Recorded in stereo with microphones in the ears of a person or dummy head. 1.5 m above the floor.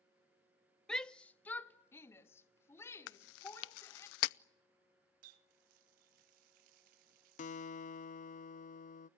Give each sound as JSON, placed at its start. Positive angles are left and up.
{"t": 0.9, "sound": "a shout", "side_deg": 5, "distance_m": 0.8}
{"t": 3.1, "sound": "chewing", "side_deg": 70, "distance_m": 0.5}
{"t": 5.2, "sound": "a running tap", "side_deg": -55, "distance_m": 0.9}
{"t": 7.4, "sound": "a guitar", "side_deg": 40, "distance_m": 0.6}